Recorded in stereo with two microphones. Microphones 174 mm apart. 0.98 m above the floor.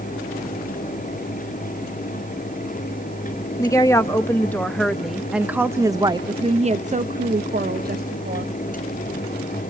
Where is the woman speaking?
20° left (ahead or behind), 1.7 m; by 8.5 s 60° right (ahead or behind), 1.5 m.